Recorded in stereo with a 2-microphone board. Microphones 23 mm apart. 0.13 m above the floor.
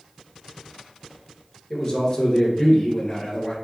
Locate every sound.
1.7 s a man speaking: 35° left (ahead or behind), 1.9 m